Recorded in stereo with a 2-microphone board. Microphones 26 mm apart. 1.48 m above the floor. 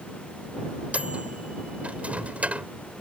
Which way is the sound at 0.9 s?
60° right (ahead or behind).